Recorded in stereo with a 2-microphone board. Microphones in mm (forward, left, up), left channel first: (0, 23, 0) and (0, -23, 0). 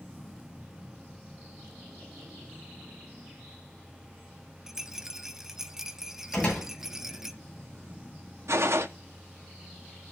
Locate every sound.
4.7 s a rattle: 10° right (ahead or behind), 0.9 m
6.3 s a door slam: 30° left (ahead or behind), 8 m
8.5 s a gunshot: 70° right (ahead or behind), 1.3 m